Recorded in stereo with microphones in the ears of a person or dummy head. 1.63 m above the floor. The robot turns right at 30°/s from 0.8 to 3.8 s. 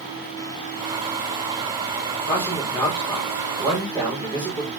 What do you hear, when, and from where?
2.3 s a man speaking: 150° left, 3.5 m; by 4.7 s 160° right, 3.5 m